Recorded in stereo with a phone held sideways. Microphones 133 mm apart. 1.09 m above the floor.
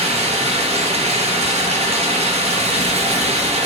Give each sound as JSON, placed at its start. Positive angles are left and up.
{"t": 0.0, "sound": "running water", "side_deg": -50, "distance_m": 0.7}